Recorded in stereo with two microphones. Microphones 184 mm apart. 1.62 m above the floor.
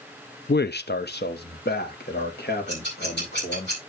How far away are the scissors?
About 9 m.